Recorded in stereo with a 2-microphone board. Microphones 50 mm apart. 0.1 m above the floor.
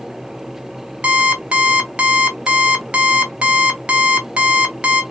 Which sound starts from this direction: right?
An alarm clock, at 1.0 s.